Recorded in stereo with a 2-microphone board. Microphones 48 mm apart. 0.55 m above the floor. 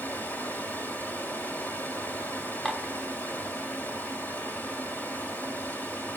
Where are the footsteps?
No footsteps in this recording.